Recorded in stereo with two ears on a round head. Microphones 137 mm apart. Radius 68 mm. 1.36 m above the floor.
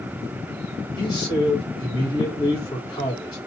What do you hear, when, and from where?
1.0 s a man speaking: 25° left (ahead or behind), 2 m